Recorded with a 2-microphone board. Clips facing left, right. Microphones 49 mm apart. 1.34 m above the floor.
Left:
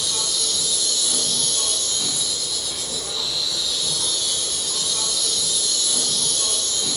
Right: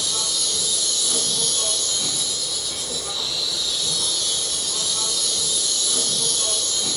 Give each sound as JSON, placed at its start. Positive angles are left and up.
{"t": 0.0, "sound": "an insect", "side_deg": -10, "distance_m": 1.1}